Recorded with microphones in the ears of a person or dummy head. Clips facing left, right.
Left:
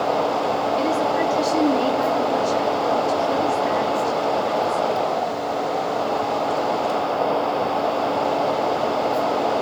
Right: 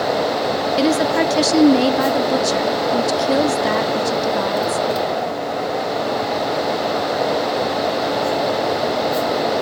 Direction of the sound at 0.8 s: 75° right (ahead or behind).